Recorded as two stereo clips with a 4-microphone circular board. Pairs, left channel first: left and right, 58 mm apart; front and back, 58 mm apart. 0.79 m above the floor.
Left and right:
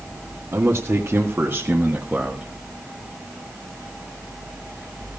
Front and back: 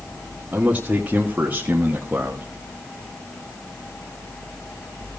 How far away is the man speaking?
About 2 m.